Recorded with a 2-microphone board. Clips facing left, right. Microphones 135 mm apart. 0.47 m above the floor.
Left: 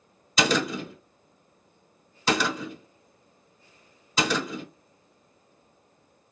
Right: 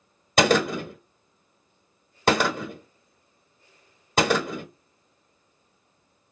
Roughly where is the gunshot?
Right.